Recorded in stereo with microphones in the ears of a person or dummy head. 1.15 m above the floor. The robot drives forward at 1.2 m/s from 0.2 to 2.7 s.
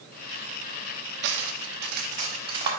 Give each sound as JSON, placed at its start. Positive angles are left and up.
{"t": 1.2, "sound": "cutlery clinking", "side_deg": -55, "distance_m": 0.9}